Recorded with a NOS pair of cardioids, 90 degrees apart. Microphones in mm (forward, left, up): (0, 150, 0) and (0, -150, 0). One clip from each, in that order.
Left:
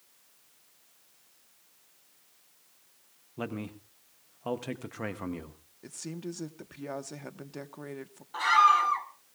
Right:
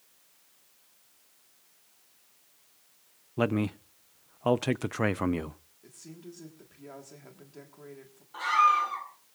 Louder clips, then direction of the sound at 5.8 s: Left 8 dB; 55° left.